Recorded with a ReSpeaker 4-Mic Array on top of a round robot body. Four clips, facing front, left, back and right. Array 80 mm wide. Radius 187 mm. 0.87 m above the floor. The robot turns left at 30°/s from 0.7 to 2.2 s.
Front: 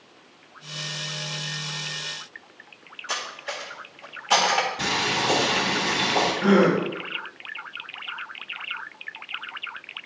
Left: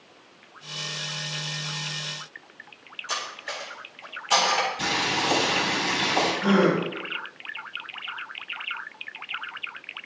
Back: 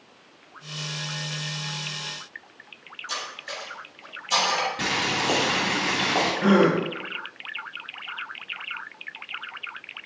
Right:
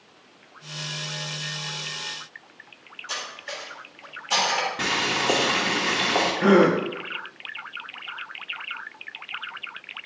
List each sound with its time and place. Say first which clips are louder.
3.1 s cutlery clinking: left 2 dB, front 3 dB; 10° left, 1.7 m
4.8 s boiling: right 1 dB, front 1 dB; 110° right, 2.5 m
6.4 s a gasp: right 5 dB, even; 105° right, 1.0 m